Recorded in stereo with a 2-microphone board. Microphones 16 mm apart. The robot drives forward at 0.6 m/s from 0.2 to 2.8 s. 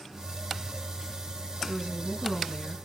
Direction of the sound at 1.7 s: 65° right (ahead or behind).